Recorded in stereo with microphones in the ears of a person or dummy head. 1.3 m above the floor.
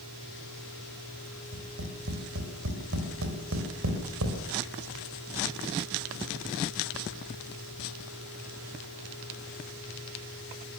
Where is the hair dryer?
I don't hear a hair dryer.